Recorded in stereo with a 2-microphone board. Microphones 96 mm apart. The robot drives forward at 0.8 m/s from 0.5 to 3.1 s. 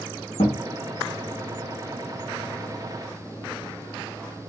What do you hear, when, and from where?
0.4 s a thud: 85° left, 2.5 m; by 0.6 s 80° left, 2.5 m